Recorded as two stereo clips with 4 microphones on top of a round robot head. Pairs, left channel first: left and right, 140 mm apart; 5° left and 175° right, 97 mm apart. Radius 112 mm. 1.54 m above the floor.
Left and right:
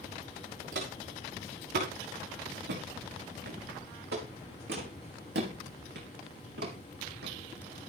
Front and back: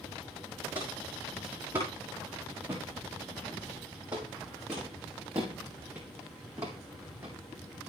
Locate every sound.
0.7 s footsteps: 105° right, 6.5 m; by 7.3 s 100° right, 3.5 m